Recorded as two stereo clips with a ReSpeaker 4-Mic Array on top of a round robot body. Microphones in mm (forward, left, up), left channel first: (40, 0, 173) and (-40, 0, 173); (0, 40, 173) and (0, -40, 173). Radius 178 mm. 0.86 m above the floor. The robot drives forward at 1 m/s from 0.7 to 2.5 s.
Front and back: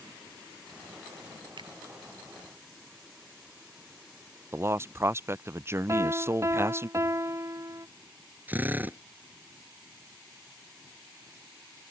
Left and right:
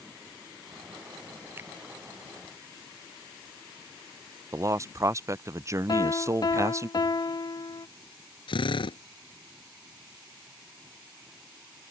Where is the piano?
125° left.